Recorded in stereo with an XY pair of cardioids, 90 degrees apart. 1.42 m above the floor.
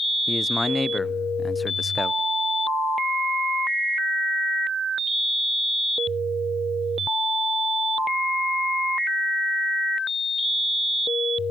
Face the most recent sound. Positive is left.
turn(degrees=20)